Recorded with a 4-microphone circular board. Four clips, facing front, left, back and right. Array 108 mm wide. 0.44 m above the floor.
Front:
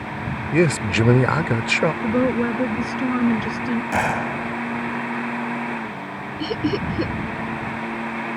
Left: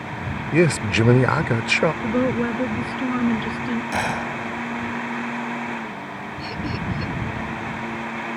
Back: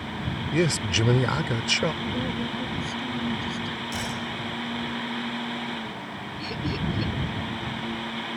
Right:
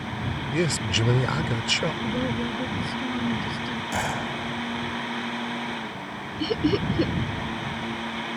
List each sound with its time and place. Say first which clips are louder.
0.5 s a man speaking: left 8 dB, front 6 dB; 50° left
2.0 s a woman speaking: left 6 dB, front 10 dB; 30° left
3.9 s a gunshot: left 3 dB, front 10 dB; 15° left
6.4 s laughter: right 7 dB, front 8 dB; 45° right